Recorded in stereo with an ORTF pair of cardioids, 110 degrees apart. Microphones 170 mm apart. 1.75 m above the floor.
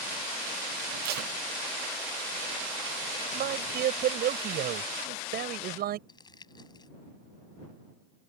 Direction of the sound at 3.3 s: 65° right.